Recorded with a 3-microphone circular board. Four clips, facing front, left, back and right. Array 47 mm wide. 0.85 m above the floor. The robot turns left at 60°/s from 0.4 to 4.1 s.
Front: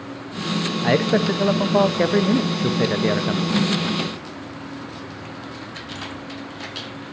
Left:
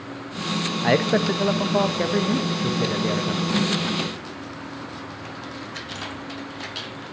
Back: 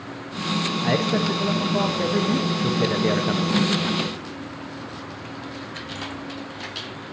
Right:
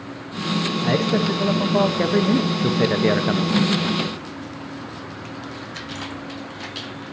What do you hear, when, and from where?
0.8 s a man speaking: 60° left, 0.7 m; by 3.6 s 105° right, 0.7 m